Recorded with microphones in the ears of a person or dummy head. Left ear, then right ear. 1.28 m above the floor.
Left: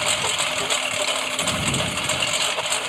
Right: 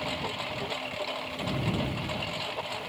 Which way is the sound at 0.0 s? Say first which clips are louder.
Left 11 dB; 55° left (ahead or behind).